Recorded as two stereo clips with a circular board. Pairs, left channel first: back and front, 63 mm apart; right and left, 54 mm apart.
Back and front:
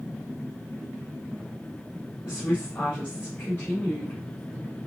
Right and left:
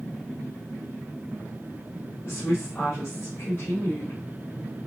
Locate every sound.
2.2 s a woman speaking: 130° right, 2.5 m